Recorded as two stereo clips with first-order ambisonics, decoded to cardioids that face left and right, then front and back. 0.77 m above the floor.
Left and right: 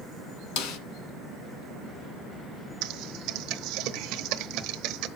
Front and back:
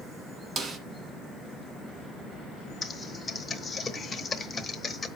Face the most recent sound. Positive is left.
turn(degrees=-70)